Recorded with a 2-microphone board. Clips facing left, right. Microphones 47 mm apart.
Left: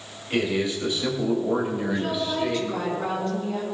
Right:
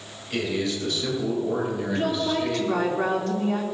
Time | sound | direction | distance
0.3 | a man speaking | 25° left (ahead or behind) | 4.5 m
1.9 | a woman speaking | 65° right (ahead or behind) | 3 m